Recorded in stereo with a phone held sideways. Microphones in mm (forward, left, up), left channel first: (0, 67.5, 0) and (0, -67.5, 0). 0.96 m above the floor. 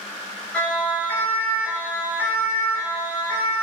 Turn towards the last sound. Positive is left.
turn(degrees=25)  # may be behind; listen again after turning